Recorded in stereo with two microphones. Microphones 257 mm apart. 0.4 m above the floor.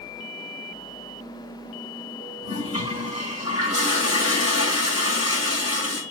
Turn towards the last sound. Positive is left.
turn(degrees=60)  # may be behind; listen again after turning